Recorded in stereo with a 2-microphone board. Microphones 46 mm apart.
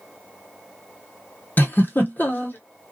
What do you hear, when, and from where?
1.6 s a giggle: 40° left (ahead or behind), 0.9 m